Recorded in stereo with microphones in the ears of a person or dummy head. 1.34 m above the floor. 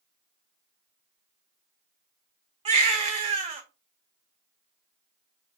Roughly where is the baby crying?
Right.